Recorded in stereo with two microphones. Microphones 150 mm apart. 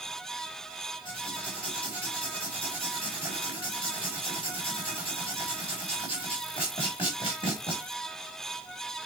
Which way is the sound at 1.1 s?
35° left (ahead or behind).